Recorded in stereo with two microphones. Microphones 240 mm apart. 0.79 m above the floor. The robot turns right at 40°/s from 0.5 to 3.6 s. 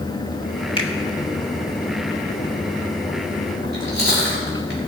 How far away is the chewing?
About 4 m.